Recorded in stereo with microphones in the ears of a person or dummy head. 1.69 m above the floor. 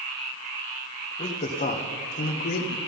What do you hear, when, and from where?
1.2 s a man speaking: 25° left (ahead or behind), 1.9 m; by 2.8 s 50° left (ahead or behind), 1.3 m